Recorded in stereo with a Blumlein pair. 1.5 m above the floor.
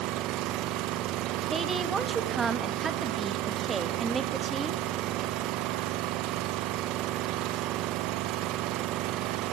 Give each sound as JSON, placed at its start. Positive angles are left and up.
{"t": 0.0, "sound": "an engine running", "azimuth_deg": -35, "distance_m": 1.2}
{"t": 1.5, "sound": "a woman speaking", "azimuth_deg": -15, "distance_m": 2.0}